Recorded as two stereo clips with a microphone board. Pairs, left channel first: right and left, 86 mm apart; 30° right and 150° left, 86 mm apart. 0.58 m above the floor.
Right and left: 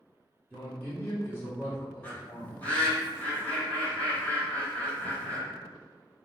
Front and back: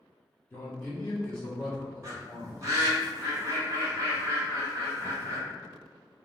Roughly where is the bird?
Behind.